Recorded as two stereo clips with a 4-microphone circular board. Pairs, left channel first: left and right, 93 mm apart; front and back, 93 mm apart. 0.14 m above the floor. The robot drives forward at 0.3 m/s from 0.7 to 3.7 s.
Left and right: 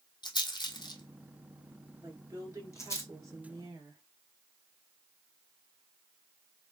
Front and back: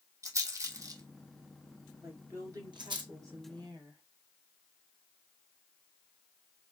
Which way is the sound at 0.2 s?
125° left.